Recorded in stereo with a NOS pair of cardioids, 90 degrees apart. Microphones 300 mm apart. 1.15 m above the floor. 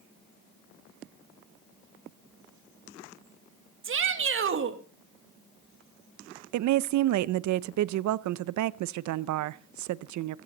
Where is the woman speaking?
70° right, 0.7 m.